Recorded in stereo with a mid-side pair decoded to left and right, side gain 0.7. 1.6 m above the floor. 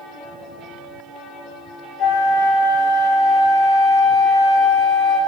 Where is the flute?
45° left, 3 m.